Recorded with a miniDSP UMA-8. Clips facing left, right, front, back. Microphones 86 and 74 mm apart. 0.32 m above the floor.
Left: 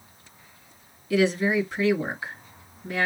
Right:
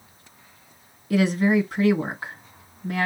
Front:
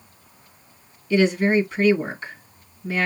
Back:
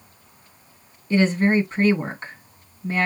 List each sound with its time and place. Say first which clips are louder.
1.1 s a woman speaking: right 2 dB, even; 130° right, 2.5 m